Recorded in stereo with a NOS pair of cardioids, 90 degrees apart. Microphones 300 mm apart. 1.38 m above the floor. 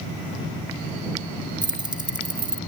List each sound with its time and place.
1.6 s keys jangling: 15° right